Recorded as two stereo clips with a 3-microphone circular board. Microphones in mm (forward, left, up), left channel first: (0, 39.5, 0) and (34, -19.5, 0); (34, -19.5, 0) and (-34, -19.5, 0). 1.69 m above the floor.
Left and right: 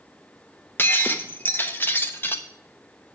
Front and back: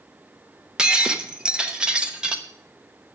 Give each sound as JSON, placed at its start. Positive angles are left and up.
{"t": 0.8, "sound": "breaking glass", "azimuth_deg": 115, "distance_m": 1.0}